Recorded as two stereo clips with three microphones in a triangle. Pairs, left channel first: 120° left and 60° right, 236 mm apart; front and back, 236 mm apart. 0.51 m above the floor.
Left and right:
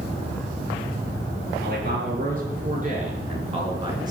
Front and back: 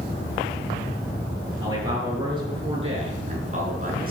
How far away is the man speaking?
About 7 m.